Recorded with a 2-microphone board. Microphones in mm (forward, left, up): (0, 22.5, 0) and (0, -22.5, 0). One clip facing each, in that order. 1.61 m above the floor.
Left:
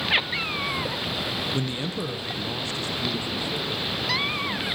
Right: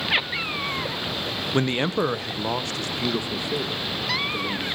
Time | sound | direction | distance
1.5 | a man speaking | 50° right (ahead or behind) | 0.8 m